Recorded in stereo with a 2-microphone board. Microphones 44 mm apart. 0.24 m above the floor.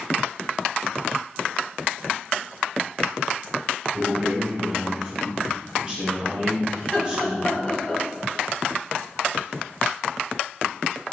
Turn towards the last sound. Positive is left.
turn(degrees=25)  # may be behind; listen again after turning